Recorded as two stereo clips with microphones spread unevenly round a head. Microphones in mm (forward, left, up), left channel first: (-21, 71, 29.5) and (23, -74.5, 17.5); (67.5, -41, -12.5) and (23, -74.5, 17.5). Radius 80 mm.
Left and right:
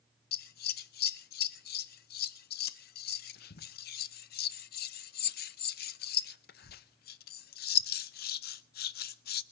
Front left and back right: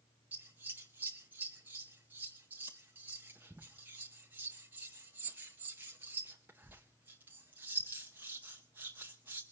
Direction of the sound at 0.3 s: 135° left.